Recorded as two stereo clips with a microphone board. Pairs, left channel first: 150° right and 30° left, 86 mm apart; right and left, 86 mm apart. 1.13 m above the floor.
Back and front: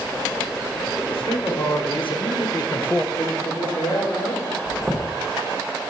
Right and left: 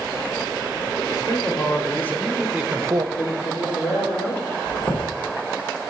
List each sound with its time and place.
1.1 s a man speaking: 140° right, 1.7 m; by 3.1 s 125° left, 0.5 m
3.2 s a man speaking: 105° right, 2.5 m
4.7 s a chime: 50° right, 1.1 m